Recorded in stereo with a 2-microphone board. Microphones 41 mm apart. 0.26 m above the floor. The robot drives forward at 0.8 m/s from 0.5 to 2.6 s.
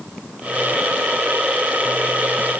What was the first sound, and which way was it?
Only background noise.